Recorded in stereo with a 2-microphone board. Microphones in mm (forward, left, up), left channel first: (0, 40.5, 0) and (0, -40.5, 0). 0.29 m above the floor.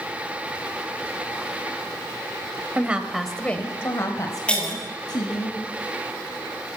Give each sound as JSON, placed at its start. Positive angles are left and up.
{"t": 2.8, "sound": "a woman speaking", "side_deg": -20, "distance_m": 1.5}
{"t": 4.5, "sound": "breaking glass", "side_deg": 15, "distance_m": 5.0}